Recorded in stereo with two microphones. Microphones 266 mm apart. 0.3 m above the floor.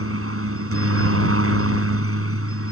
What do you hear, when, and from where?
0.0 s a helicopter: 55° right (ahead or behind)